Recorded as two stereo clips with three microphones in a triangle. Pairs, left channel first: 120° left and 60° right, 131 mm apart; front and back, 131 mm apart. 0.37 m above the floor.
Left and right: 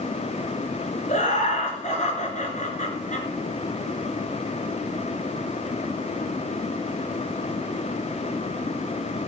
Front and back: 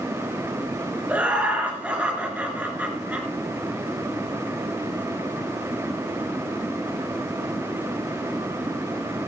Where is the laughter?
100° left, 4 m.